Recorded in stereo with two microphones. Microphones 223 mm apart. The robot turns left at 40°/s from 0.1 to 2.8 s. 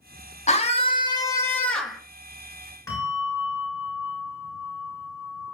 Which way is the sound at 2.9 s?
15° left (ahead or behind).